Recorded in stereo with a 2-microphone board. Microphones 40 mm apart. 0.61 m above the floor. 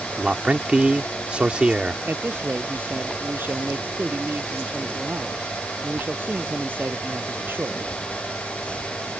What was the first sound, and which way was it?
A man speaking, 30° right (ahead or behind).